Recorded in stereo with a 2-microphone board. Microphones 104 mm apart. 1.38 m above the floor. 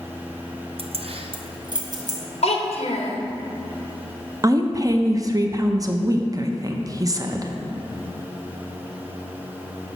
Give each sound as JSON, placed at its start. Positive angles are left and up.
{"t": 0.8, "sound": "keys jangling", "side_deg": -60, "distance_m": 0.5}
{"t": 2.4, "sound": "a child speaking", "side_deg": 70, "distance_m": 1.2}
{"t": 4.4, "sound": "a woman speaking", "side_deg": -30, "distance_m": 0.6}